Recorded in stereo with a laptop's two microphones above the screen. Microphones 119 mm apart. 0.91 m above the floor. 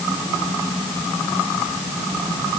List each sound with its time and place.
Only background noise.